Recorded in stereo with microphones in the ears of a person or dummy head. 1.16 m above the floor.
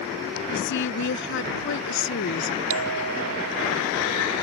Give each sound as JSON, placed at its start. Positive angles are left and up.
{"t": 0.5, "sound": "a woman speaking", "side_deg": 60}
{"t": 2.7, "sound": "a bell", "side_deg": -80}